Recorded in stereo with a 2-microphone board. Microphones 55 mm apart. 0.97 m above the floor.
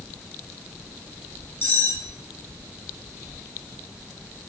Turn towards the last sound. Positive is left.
turn(degrees=45)  # may be behind; listen again after turning